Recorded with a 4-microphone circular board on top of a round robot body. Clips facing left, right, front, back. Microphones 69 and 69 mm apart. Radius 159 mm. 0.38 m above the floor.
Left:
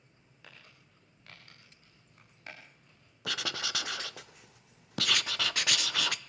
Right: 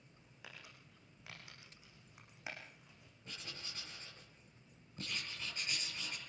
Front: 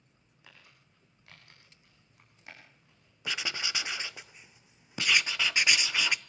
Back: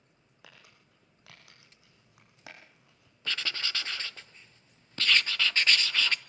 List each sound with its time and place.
0.4 s crumpling: 170° right, 7 m
3.2 s writing: 75° left, 0.8 m